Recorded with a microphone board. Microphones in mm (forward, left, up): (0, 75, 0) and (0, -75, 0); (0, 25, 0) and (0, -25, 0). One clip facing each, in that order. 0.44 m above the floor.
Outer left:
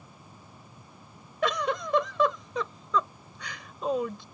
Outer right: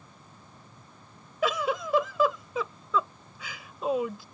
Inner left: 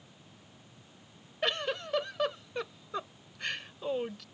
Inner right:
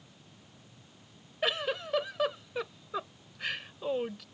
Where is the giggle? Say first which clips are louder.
Even, inner right 1 dB; 5° right (ahead or behind).